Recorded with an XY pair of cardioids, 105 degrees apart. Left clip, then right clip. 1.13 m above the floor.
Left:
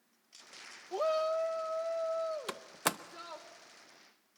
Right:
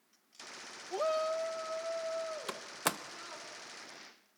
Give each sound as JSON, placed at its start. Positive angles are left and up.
{"t": 0.9, "sound": "a shout", "azimuth_deg": 5, "distance_m": 0.6}
{"t": 2.5, "sound": "a door slam", "azimuth_deg": 10, "distance_m": 0.8}